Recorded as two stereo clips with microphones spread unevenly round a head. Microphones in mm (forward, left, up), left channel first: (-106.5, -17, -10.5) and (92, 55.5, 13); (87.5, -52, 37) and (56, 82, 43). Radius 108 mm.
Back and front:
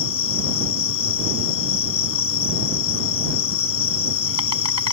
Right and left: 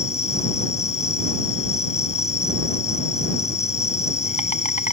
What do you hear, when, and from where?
0.0 s an insect: 135° right